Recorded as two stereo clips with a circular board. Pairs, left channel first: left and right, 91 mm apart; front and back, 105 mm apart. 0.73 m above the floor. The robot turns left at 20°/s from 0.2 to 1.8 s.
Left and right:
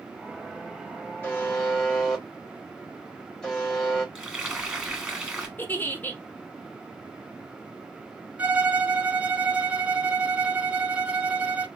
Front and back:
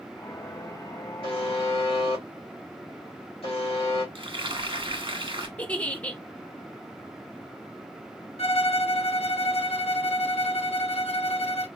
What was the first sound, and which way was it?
A buzzer, 20° left.